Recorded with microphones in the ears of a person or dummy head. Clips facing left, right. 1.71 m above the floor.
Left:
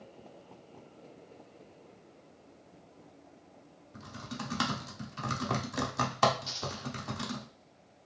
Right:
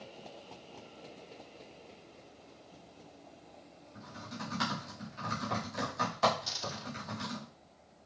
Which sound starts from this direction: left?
Typing on a keyboard, at 3.9 s.